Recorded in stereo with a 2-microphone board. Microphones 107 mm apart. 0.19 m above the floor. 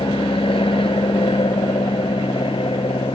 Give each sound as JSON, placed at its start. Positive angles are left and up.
{"t": 0.0, "sound": "an aircraft", "side_deg": 55}